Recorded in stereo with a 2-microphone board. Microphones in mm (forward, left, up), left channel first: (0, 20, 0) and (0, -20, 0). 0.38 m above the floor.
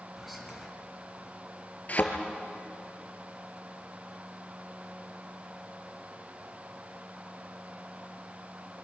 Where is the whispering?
Centre (ahead or behind), 3 m.